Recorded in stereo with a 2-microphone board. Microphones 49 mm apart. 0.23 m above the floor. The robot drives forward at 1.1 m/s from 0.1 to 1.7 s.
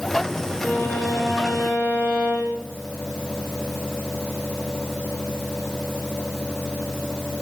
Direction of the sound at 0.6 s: 30° left (ahead or behind).